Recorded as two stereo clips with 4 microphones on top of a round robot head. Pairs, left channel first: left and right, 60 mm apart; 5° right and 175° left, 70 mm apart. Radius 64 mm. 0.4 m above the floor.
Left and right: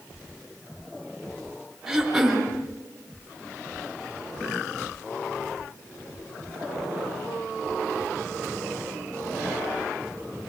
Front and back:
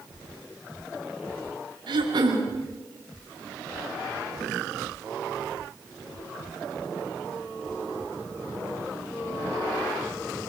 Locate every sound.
1.9 s throat clearing: 175° right, 5.5 m